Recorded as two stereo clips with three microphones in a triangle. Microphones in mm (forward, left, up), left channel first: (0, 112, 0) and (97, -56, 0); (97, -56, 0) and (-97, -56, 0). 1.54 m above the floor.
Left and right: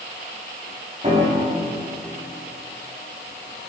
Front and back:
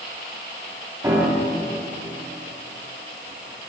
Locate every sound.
1.0 s a piano: 110° right, 3.5 m